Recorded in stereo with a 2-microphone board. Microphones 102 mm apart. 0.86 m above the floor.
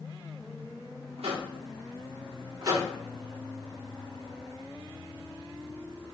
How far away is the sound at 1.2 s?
About 0.7 m.